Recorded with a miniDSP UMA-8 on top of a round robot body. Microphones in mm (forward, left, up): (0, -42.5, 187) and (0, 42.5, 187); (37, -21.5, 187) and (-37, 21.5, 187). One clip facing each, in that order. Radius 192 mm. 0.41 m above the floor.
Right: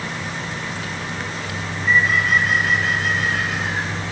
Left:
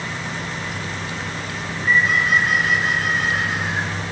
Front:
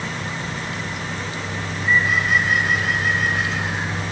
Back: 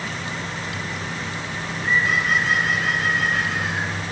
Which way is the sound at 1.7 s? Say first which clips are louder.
Even, front 2 dB; 145° left.